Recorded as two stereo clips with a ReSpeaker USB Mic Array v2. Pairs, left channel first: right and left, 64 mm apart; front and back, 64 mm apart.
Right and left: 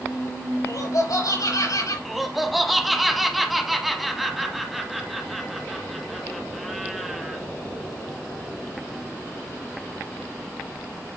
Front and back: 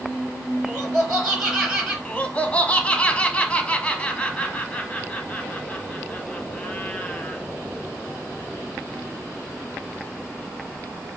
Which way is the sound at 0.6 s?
85° right.